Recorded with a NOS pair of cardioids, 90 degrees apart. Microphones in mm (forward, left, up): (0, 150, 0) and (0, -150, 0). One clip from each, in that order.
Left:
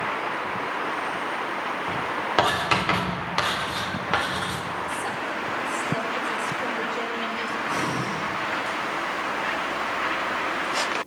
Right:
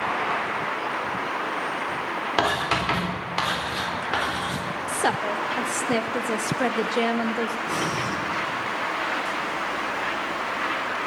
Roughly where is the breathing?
Ahead right.